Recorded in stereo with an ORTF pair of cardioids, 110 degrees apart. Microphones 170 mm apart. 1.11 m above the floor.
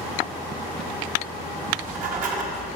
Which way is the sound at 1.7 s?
55° right.